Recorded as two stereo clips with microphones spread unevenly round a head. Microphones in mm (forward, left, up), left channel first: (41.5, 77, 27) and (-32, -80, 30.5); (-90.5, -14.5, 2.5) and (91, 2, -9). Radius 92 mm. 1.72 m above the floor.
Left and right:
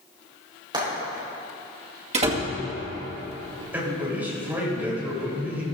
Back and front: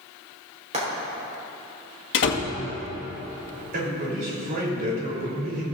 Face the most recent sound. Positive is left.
turn(degrees=-35)